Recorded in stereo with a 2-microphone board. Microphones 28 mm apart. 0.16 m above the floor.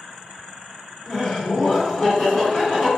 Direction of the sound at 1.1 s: 15° left (ahead or behind).